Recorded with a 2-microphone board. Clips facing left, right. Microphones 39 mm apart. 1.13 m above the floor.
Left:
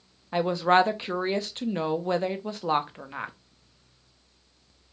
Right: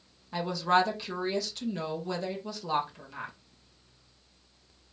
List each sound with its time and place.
0.3 s a woman speaking: 35° left (ahead or behind), 0.5 m